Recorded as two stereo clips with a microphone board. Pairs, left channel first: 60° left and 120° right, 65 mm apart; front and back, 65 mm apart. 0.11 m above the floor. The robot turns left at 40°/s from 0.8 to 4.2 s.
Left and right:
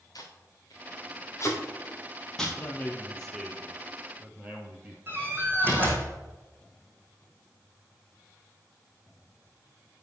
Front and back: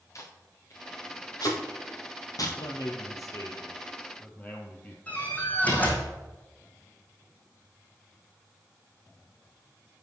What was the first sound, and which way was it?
Tape being pulled, 40° left.